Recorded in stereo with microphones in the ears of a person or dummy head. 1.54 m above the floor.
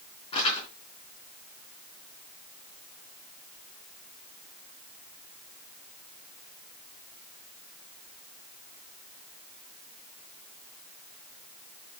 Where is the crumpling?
30° left (ahead or behind), 3.5 m.